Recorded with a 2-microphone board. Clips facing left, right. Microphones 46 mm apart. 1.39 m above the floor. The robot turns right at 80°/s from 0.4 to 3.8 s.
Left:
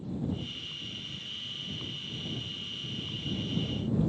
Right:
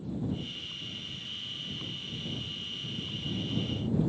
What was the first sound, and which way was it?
Only background noise.